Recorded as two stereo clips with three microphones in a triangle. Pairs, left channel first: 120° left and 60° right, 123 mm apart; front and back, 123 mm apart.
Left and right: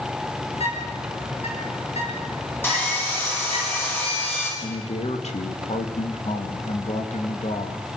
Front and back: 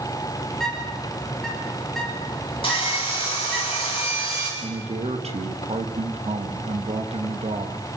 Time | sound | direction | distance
0.5 | a bird | 85° left | 9 m
2.6 | sawing | 45° left | 9.5 m
4.6 | a man speaking | 145° left | 3 m